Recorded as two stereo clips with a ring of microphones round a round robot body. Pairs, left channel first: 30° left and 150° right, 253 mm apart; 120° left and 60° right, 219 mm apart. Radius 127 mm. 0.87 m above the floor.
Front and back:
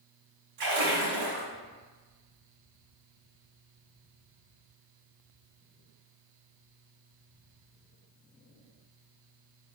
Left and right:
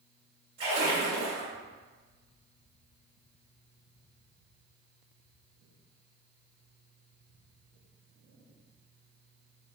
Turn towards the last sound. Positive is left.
turn(degrees=-130)